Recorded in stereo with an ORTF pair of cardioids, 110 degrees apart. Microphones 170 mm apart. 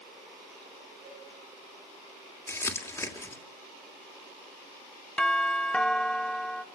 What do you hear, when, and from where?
1.1 s a cowbell: 65° right, 7.5 m
2.5 s crumpling: 15° left, 3 m
5.2 s a doorbell: 5° left, 1.0 m